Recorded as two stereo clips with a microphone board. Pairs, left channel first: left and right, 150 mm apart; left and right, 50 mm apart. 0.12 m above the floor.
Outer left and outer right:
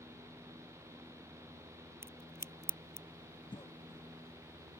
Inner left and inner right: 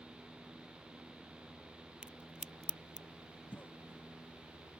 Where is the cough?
30° left (ahead or behind).